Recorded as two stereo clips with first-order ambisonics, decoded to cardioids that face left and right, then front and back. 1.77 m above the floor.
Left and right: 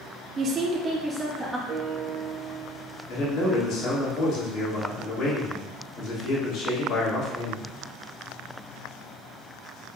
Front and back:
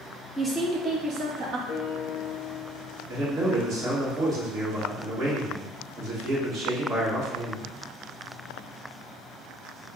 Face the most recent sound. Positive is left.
turn(degrees=125)